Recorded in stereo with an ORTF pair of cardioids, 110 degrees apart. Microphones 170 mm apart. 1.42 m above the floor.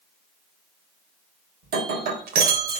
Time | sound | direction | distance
1.6 | breaking glass | 70° right | 3 m